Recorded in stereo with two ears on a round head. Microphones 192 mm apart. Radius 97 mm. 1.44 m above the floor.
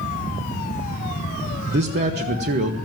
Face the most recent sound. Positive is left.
turn(degrees=-50)  # may be behind; listen again after turning